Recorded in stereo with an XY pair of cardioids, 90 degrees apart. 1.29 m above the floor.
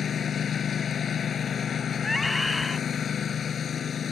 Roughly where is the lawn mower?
Ahead left.